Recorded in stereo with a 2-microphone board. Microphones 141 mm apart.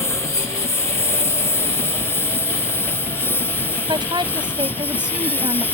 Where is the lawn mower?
15° left (ahead or behind).